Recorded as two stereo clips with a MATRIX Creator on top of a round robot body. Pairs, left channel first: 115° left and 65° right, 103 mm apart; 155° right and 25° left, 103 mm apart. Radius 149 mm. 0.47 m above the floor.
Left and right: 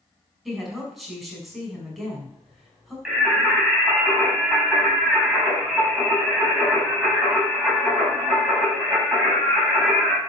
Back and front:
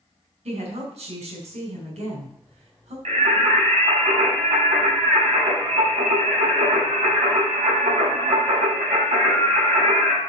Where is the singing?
15° left, 5.5 m.